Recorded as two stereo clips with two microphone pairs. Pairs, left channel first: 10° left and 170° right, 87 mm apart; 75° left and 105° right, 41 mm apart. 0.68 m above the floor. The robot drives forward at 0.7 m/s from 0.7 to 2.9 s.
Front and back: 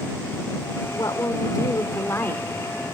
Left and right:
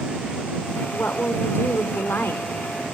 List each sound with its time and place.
0.9 s a woman speaking: 50° left, 2.5 m; by 2.5 s 75° left, 2 m